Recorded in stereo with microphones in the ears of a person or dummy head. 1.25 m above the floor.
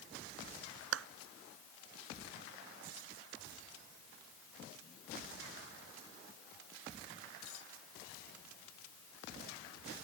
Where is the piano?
I don't hear a piano.